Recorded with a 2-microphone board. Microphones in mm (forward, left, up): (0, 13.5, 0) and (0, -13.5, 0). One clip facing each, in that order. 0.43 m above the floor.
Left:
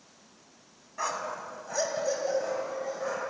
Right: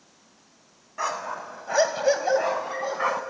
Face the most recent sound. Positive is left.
turn(degrees=-75)  # may be behind; listen again after turning